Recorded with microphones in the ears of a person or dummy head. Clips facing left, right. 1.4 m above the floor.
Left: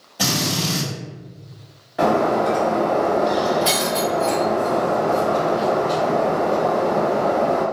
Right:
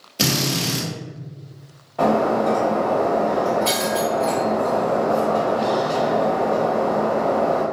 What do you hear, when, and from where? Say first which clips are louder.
0.2 s a drill: right 1 dB; 35° right (ahead or behind), 0.9 m
2.0 s breaking glass: even; 15° left (ahead or behind), 0.8 m